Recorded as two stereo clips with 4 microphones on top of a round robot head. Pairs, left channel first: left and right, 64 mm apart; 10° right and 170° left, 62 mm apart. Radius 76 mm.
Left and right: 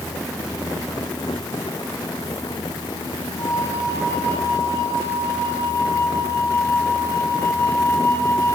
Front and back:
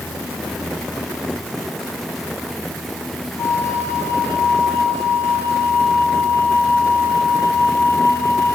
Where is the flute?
35° left, 5 m.